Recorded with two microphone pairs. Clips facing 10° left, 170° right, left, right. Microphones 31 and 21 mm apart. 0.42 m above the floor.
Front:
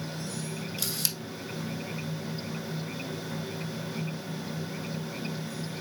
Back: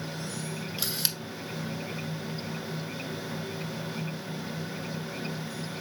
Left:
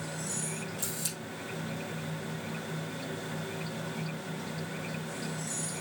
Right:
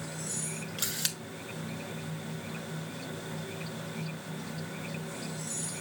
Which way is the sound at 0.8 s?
105° right.